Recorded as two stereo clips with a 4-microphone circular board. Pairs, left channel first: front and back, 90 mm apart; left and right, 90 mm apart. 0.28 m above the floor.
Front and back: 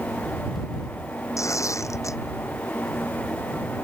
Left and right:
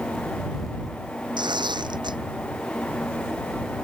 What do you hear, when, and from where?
1.4 s tearing paper: 55° right